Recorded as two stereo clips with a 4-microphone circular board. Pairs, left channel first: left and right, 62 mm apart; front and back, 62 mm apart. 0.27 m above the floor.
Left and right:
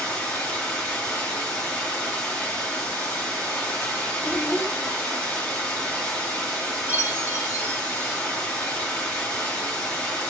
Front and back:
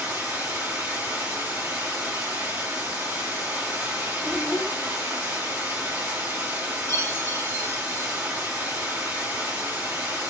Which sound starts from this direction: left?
A child speaking, at 4.2 s.